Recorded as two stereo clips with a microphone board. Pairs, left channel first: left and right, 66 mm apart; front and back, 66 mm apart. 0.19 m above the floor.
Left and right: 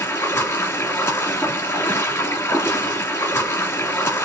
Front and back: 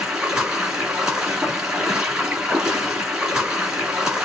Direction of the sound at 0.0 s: 105° left.